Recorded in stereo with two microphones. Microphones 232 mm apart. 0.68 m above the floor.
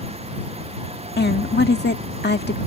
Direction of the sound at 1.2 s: 45° left (ahead or behind).